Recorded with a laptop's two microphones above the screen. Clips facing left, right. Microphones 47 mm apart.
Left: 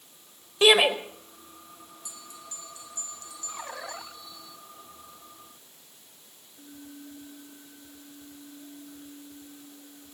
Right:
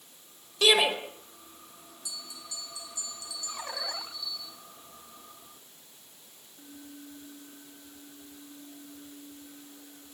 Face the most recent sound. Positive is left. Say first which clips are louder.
# right 3 dB
turn(degrees=40)  # may be behind; listen again after turning